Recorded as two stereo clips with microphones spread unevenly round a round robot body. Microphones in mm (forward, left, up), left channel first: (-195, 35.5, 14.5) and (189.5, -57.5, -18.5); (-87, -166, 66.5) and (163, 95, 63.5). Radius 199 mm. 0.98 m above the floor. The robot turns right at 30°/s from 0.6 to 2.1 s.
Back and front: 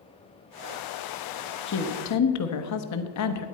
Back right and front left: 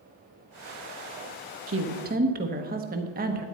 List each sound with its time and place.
1.7 s a woman speaking: 100° left, 1.0 m; by 3.5 s 115° left, 1.0 m